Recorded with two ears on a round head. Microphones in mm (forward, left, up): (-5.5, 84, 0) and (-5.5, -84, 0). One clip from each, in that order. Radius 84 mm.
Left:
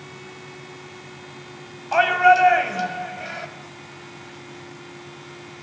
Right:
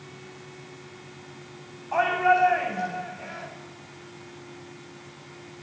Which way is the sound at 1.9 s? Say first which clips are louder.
Left 6 dB; 80° left.